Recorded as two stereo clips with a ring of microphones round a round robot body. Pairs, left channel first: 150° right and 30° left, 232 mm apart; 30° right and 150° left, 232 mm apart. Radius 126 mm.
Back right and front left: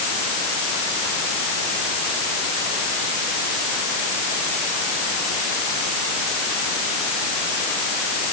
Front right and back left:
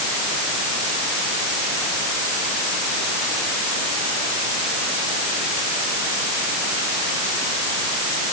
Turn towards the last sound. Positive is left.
No sound to turn to.